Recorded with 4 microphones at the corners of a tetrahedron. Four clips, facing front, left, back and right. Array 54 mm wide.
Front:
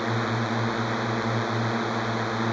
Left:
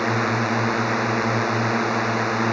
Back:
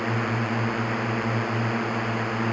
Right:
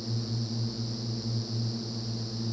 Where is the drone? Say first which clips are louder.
Left 15 dB, even; 90° left.